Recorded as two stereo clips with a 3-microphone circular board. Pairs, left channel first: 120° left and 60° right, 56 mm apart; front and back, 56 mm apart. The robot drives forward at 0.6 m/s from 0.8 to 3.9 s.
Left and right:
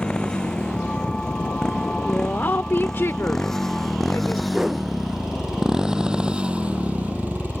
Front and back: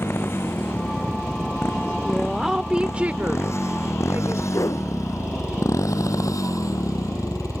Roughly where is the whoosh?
Ahead left.